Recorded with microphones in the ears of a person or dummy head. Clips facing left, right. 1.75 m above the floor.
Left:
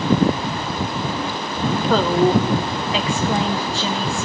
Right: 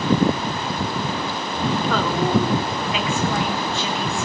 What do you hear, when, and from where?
1.9 s a woman speaking: 30° left (ahead or behind), 1.7 m